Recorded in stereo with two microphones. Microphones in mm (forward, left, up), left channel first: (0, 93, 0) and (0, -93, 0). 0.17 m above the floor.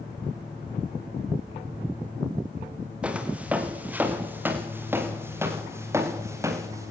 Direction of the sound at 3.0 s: 5° right (ahead or behind).